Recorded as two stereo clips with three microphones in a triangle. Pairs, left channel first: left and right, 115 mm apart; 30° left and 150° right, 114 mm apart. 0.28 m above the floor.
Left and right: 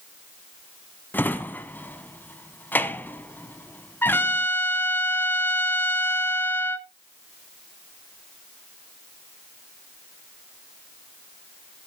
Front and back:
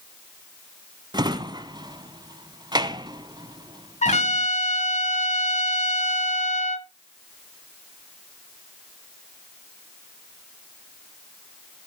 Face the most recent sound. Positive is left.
turn(degrees=20)